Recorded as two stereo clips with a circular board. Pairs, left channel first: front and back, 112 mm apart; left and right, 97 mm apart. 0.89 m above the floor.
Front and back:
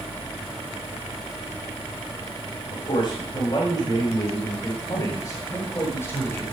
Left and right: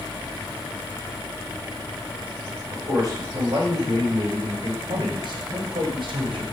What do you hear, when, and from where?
2.7 s a man speaking: 45° right, 5.5 m; by 6.4 s 70° right, 3.5 m